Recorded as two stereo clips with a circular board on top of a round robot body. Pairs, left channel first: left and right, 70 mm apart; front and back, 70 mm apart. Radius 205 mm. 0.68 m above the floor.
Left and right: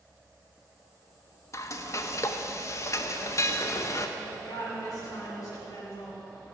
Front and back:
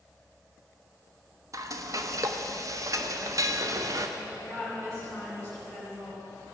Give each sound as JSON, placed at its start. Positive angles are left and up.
{"t": 1.5, "sound": "frying", "azimuth_deg": 135, "distance_m": 0.7}
{"t": 4.2, "sound": "a woman speaking", "azimuth_deg": 135, "distance_m": 5.0}